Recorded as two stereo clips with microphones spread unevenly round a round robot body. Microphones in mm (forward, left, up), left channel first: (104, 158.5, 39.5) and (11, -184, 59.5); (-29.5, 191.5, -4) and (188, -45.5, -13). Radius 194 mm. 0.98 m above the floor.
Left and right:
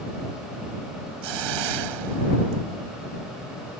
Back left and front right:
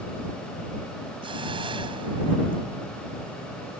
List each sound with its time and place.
1.2 s a hiss: 125° right